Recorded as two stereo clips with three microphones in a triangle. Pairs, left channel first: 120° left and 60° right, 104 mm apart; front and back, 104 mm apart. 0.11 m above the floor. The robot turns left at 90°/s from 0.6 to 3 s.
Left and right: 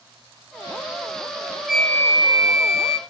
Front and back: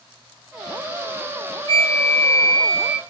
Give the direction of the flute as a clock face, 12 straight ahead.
5 o'clock.